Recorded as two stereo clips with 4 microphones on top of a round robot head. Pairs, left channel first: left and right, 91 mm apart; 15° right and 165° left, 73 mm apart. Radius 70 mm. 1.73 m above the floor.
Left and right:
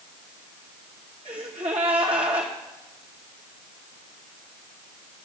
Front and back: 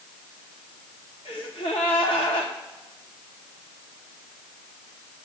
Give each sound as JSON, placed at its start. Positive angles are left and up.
{"t": 1.2, "sound": "a gasp", "azimuth_deg": -50, "distance_m": 1.7}